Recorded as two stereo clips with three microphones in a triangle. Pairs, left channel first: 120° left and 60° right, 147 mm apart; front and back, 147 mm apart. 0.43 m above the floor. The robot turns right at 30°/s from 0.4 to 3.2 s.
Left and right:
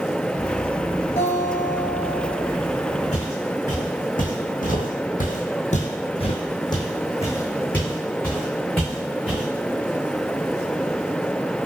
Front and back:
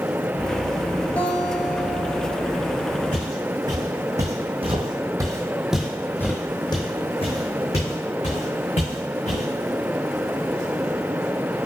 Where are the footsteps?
155° left, 1.8 m; by 9.5 s 30° left, 2.5 m.